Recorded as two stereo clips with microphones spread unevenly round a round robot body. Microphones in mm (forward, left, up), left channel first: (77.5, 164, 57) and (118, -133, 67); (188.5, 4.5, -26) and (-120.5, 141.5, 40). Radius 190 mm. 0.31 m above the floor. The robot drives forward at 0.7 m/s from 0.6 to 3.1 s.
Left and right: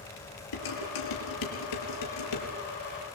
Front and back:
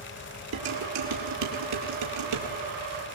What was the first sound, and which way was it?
Dishes clattering, 110° left.